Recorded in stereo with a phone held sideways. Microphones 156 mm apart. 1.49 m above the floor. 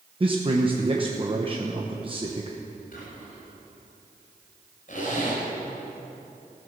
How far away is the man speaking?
About 1.0 m.